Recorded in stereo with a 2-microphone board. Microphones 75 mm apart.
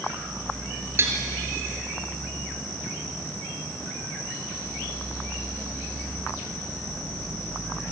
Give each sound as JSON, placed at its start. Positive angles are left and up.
{"t": 1.0, "sound": "dishes clattering", "side_deg": -40, "distance_m": 3.0}